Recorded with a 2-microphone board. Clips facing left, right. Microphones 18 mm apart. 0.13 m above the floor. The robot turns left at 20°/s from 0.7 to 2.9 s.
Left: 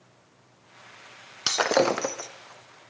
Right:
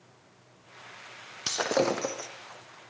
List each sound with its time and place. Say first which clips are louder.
1.5 s breaking glass: left 4 dB; 40° left (ahead or behind), 2 m; by 2.3 s 25° left (ahead or behind), 2 m